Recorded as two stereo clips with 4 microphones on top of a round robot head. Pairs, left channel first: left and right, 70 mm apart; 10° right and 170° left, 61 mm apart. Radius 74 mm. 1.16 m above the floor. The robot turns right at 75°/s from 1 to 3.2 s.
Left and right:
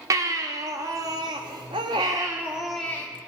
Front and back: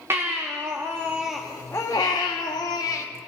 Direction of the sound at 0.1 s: 125° right.